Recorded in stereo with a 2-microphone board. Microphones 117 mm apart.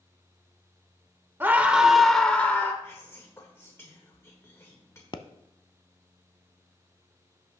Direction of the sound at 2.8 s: 25° left (ahead or behind).